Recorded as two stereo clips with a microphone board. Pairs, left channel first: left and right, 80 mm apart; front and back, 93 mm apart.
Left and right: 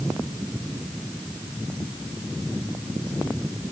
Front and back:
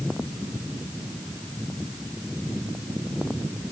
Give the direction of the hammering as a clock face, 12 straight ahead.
No hammering in this recording.